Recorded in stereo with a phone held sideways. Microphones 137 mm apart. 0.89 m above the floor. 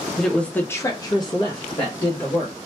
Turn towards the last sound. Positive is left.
turn(degrees=30)  # may be behind; listen again after turning